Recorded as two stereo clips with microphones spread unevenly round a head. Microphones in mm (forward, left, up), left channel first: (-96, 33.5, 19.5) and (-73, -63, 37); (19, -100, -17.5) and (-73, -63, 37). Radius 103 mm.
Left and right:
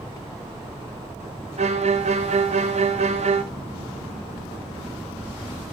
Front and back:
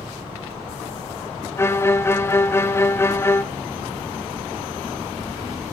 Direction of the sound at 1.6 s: 75° right.